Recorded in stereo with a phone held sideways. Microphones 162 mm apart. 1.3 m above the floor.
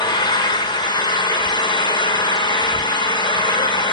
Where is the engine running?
25° left (ahead or behind), 1.2 m.